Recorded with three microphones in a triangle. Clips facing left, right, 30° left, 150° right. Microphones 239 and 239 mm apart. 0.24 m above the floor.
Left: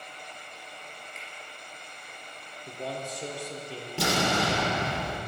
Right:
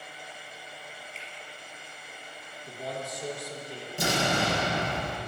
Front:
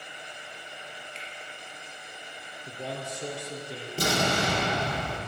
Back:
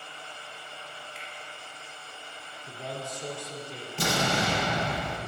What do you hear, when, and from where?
1.1 s a finger snap: 30° right, 3.5 m
2.7 s a man speaking: 35° left, 3 m
4.0 s an explosion: 75° left, 4 m